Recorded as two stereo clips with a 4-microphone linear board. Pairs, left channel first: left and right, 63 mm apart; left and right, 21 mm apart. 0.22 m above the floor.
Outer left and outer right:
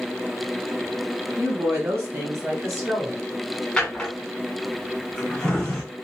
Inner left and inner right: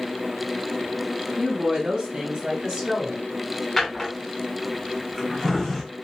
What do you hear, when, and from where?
1.4 s a woman speaking: 35° right (ahead or behind), 1.8 m; by 3.2 s 30° right (ahead or behind), 1.3 m
3.8 s a drawer: 10° left (ahead or behind), 1.2 m